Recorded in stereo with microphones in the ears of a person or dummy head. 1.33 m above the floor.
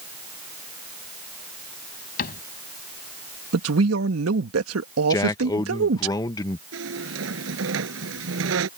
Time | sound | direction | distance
2.2 | a cupboard door | 50° left (ahead or behind) | ?
3.5 | a man speaking | 85° right | ?
5.1 | a man speaking | 20° left (ahead or behind) | ?
6.7 | a squeak | 75° right (ahead or behind) | ?